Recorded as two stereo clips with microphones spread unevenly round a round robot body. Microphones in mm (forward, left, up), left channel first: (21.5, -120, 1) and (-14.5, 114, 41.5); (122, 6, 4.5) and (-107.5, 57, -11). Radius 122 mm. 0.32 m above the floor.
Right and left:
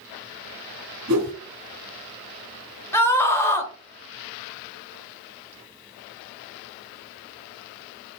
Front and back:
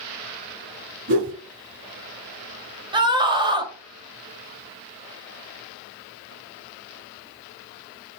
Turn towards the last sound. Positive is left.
turn(degrees=-140)